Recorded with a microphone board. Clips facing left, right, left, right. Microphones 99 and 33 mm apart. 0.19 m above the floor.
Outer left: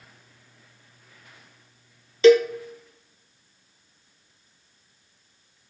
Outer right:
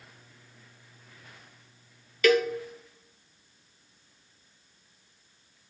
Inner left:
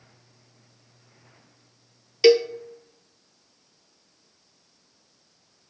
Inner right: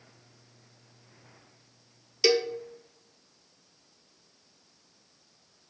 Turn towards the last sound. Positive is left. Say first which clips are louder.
# outer left 8 dB, inner left 8 dB
turn(degrees=25)  # may be behind; listen again after turning